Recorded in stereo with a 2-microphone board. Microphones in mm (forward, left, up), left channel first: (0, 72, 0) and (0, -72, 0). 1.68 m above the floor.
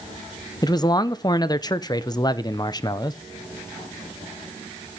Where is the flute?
I don't hear a flute.